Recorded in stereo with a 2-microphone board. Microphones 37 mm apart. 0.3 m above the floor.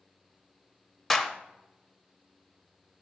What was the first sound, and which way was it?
A clap, 5° left (ahead or behind).